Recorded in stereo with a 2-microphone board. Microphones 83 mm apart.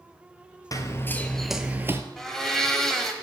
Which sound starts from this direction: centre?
A blender, at 2.2 s.